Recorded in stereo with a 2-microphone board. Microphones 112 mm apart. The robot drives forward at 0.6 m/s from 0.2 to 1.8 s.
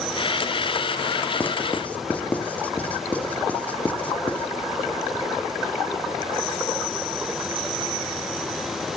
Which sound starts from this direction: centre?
Writing, at 1.4 s.